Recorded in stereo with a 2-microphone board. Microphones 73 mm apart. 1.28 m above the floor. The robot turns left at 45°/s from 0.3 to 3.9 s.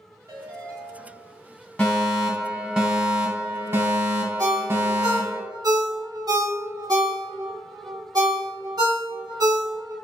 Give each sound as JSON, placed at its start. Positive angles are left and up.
{"t": 0.3, "sound": "a ringtone", "azimuth_deg": -110, "distance_m": 1.4}
{"t": 1.8, "sound": "a fire alarm", "azimuth_deg": 25, "distance_m": 1.4}
{"t": 4.4, "sound": "a ringtone", "side_deg": -60, "distance_m": 1.0}